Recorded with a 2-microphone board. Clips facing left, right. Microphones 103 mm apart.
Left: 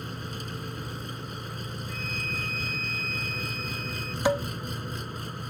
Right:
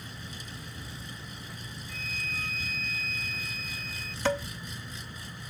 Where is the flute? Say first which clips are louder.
Left 1 dB; centre (ahead or behind).